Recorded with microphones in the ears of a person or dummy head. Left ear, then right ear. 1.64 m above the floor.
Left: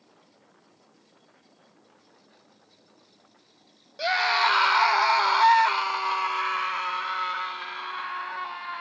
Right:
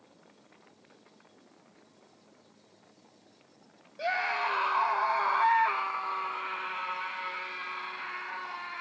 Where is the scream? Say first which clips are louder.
Left 7 dB; 35° left (ahead or behind), 1.3 m; by 8.8 s 50° left (ahead or behind), 3 m.